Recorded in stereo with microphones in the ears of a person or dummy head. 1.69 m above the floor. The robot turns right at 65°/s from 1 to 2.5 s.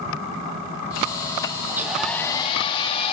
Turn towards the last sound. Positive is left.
turn(degrees=35)